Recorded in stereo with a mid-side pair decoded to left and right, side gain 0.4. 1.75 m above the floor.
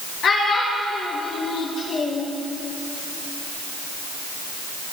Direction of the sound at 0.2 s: 65° left.